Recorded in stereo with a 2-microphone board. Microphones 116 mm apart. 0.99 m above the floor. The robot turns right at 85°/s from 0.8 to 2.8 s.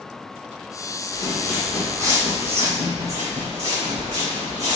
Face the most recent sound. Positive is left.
turn(degrees=-70)  # may be behind; listen again after turning